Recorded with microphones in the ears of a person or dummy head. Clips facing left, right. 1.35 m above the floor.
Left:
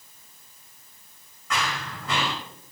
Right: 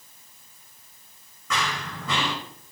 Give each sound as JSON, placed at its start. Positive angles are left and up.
{"t": 1.5, "sound": "running footsteps", "side_deg": -75, "distance_m": 5.5}